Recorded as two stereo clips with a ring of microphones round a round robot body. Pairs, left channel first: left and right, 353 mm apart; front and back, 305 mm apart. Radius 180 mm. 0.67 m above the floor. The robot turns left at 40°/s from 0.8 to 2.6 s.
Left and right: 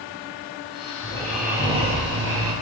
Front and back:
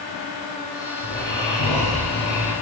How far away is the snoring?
About 2 m.